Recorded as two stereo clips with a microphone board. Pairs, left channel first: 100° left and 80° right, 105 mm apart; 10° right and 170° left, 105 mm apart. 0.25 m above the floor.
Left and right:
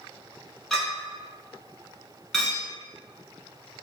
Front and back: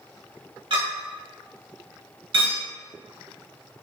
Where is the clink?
170° right, 1.2 m.